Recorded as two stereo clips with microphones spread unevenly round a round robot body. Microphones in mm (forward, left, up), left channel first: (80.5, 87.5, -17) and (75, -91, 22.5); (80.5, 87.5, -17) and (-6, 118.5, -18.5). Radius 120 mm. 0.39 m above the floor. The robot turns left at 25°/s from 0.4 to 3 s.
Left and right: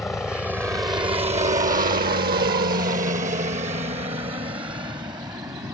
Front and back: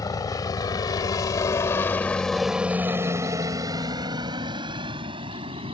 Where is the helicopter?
10° left; by 5.7 s 170° right.